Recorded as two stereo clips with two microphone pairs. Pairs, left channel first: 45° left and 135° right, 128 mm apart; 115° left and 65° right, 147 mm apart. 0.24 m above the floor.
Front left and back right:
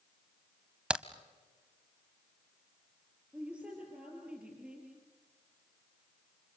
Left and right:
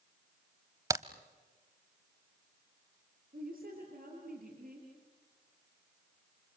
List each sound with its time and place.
0.9 s a crack: 65° right, 0.8 m
3.3 s a woman speaking: 55° right, 5 m